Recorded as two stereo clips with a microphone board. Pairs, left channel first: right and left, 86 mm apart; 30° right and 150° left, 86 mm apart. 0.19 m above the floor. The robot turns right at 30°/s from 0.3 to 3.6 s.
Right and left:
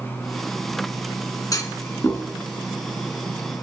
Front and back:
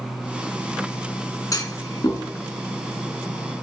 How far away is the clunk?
About 1.4 m.